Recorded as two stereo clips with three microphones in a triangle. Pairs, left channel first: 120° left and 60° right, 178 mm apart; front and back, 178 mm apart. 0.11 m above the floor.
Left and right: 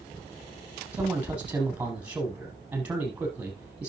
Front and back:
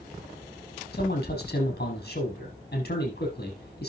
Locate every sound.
0.9 s a man speaking: 20° left, 5.5 m